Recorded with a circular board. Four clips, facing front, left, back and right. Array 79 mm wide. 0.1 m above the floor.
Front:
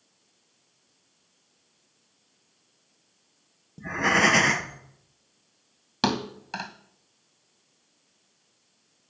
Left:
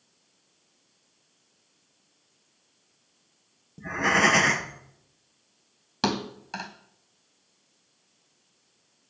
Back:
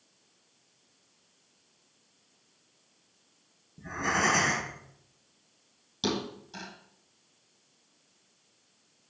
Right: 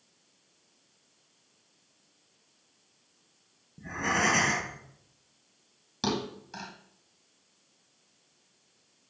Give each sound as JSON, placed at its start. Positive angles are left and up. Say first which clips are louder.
{"t": 3.8, "sound": "breathing", "louder": "left 6 dB, front 6 dB", "azimuth_deg": 35, "distance_m": 1.3}
{"t": 6.0, "sound": "a thud", "louder": "left 3 dB, front 5 dB", "azimuth_deg": 30, "distance_m": 2.0}